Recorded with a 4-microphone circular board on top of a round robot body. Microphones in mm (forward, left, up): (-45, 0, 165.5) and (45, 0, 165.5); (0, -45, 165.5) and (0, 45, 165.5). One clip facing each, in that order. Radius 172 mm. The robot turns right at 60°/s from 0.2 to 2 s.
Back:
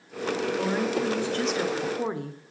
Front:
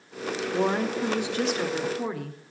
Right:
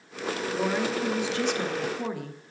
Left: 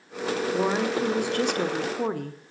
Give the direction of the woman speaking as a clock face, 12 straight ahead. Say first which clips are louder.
Front 4 dB, left 2 dB; 11 o'clock.